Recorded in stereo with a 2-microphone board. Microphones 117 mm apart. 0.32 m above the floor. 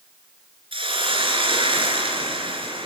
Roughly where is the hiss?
Right.